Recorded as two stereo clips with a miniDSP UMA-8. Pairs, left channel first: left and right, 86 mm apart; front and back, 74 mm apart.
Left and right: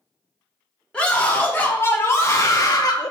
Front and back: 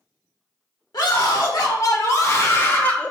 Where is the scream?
15° left, 1.6 m; by 3.1 s 70° left, 0.9 m.